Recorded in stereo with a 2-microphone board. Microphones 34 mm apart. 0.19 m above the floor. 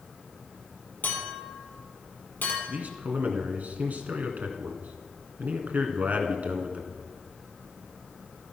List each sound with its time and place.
1.0 s a clink: 70° left (ahead or behind), 4 m
2.7 s a man speaking: 55° right (ahead or behind), 1.7 m